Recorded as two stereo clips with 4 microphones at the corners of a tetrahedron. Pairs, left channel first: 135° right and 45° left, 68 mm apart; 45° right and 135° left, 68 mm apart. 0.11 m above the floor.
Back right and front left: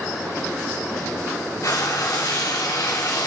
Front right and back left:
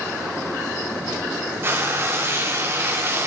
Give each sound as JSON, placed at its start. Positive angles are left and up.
{"t": 1.6, "sound": "frying", "azimuth_deg": -170, "distance_m": 2.0}